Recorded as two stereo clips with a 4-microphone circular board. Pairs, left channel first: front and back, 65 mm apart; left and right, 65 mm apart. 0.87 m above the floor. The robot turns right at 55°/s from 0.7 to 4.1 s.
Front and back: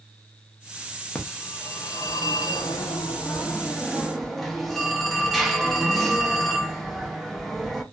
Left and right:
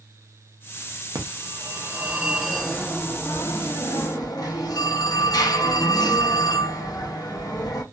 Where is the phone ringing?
75° right, 0.6 m; by 7.8 s 85° left, 0.6 m.